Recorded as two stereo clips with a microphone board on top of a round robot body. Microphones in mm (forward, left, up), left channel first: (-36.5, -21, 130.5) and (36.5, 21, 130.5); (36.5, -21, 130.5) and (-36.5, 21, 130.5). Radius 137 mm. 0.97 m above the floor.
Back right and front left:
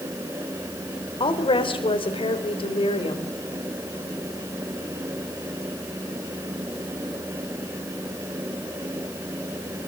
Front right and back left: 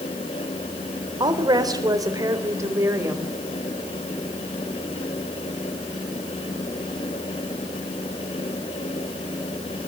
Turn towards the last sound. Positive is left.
turn(degrees=-145)